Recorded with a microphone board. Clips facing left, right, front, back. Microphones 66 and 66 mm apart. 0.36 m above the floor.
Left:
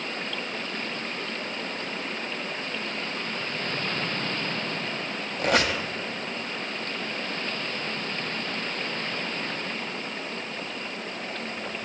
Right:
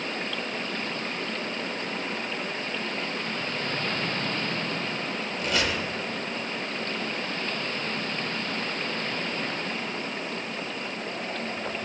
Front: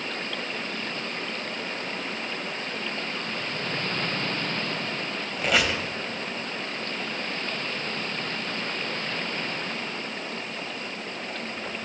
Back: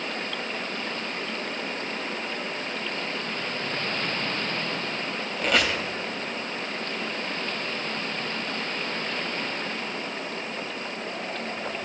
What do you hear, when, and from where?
5.4 s a squeak: 85° left, 0.8 m